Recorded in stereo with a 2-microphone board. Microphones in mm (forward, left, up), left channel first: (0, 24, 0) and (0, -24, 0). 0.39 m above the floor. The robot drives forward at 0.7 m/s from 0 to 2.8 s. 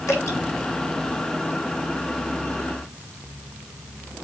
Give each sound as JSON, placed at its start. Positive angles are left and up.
{"t": 0.1, "sound": "dripping", "side_deg": 75, "distance_m": 4.0}